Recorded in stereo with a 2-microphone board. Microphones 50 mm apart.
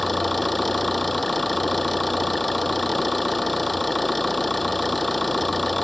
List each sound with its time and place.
0.0 s an engine running: centre (ahead or behind)